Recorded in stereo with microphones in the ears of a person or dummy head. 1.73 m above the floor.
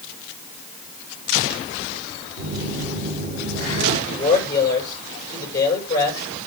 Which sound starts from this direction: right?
A phone buzzing, at 2.4 s.